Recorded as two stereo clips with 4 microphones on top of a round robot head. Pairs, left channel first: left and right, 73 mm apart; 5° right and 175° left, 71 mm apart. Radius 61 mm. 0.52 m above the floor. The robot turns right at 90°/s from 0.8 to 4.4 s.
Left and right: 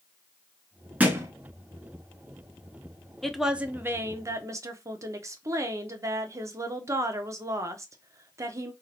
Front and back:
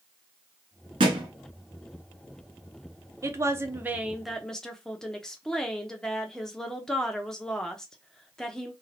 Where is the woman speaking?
170° left, 1.1 m; by 8.7 s 85° right, 1.1 m.